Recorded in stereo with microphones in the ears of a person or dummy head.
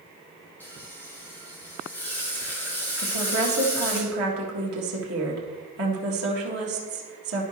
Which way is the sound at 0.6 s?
10° left (ahead or behind).